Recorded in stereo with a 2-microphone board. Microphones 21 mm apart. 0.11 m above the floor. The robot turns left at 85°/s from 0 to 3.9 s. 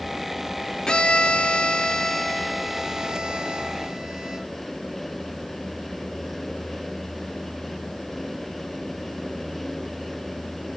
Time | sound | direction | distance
0.9 | a violin | 135° left | 1.0 m